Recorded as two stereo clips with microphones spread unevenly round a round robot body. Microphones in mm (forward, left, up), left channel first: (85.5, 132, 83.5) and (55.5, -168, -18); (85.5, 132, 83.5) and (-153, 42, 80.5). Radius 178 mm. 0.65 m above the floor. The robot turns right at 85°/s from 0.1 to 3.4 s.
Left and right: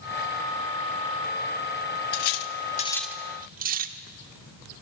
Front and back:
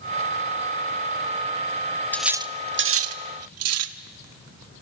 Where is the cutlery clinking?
105° left, 0.9 m; by 4.0 s 150° right, 0.9 m.